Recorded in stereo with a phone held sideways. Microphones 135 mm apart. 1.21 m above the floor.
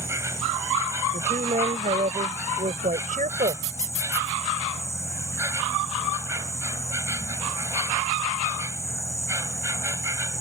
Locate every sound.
0.0 s an insect: 20° right (ahead or behind)
1.1 s a woman speaking: 75° right (ahead or behind)